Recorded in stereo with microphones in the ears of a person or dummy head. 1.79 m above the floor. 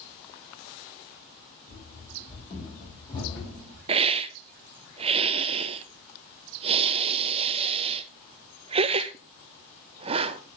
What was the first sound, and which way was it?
Running footsteps, 50° left (ahead or behind).